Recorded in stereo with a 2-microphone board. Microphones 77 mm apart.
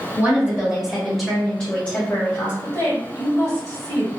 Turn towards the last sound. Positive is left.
turn(degrees=40)  # may be behind; listen again after turning